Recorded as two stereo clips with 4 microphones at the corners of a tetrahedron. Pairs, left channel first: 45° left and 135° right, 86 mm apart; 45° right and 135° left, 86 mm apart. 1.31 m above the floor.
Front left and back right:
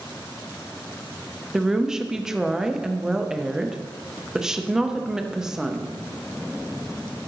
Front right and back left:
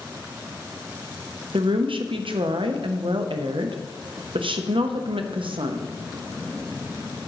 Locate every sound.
1.5 s a woman speaking: 140° left, 0.7 m